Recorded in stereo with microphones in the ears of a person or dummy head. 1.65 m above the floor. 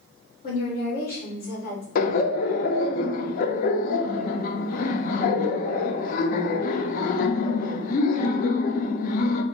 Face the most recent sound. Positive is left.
turn(degrees=55)  # may be behind; listen again after turning